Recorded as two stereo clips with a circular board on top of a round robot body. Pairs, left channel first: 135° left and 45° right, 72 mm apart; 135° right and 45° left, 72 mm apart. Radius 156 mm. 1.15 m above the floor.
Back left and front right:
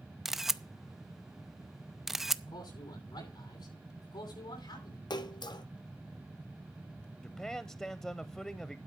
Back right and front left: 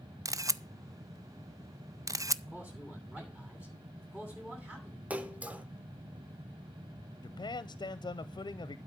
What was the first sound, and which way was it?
A camera shutter, 40° left.